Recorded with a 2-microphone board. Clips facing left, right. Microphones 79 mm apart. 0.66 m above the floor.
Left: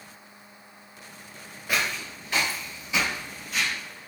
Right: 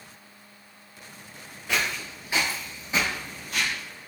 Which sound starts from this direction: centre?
Footsteps, at 1.7 s.